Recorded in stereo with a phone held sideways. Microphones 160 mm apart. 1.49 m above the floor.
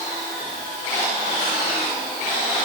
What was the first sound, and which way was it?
Only background noise.